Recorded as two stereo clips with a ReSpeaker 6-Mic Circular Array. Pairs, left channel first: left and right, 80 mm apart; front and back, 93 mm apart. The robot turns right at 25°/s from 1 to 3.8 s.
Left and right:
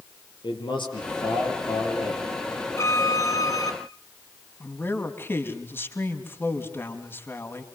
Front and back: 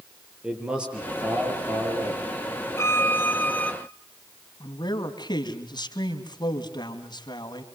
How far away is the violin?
About 1.5 m.